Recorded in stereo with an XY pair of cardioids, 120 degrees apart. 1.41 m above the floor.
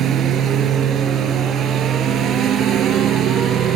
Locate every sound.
0.0 s a lawn mower: 60° right